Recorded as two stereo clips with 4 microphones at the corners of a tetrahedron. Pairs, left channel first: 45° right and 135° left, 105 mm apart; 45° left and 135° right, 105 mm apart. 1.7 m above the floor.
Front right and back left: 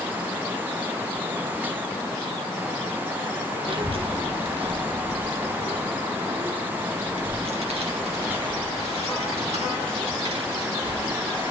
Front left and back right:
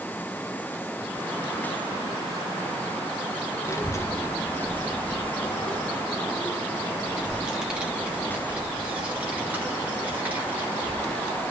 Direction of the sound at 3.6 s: 105° left.